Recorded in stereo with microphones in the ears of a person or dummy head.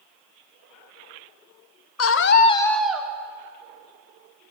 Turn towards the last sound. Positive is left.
turn(degrees=-10)  # may be behind; listen again after turning